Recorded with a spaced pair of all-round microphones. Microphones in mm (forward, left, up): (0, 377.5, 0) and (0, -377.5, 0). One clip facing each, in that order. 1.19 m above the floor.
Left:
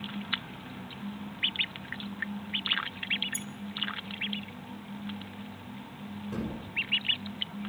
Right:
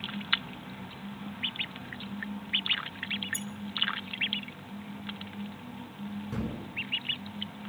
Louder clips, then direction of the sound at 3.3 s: Right 2 dB; 20° right (ahead or behind).